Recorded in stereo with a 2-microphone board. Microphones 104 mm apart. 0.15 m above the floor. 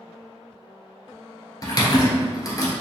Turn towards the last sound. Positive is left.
turn(degrees=35)  # may be behind; listen again after turning